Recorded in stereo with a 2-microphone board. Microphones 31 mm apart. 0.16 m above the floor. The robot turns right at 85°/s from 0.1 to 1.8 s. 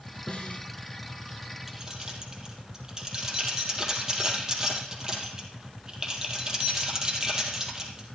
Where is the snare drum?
45° left, 1.5 m; by 0.7 s 80° left, 1.5 m.